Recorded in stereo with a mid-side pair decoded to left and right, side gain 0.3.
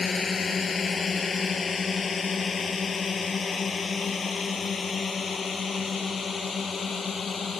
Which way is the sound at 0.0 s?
50° left.